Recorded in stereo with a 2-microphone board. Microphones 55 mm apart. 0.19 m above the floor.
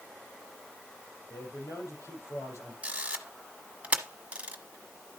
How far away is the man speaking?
About 6.5 m.